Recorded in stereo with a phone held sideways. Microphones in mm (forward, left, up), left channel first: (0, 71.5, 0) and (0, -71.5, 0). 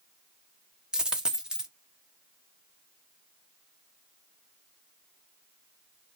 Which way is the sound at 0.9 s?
5° right (ahead or behind).